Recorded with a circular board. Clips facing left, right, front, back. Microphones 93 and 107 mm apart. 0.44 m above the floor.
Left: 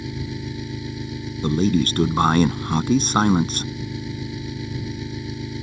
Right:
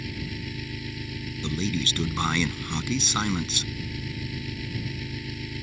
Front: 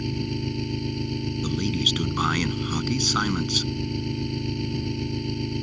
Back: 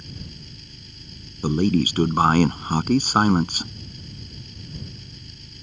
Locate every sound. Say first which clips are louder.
0.0 s an engine running: left 5 dB, front 14 dB; 25° left
1.4 s a man speaking: left 10 dB, back 10 dB; 135° left